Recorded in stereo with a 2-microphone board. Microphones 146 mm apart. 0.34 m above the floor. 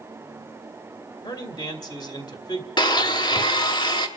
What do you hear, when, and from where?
1.2 s a man speaking: 25° left (ahead or behind), 1.3 m
2.8 s a blender: 30° left (ahead or behind), 0.8 m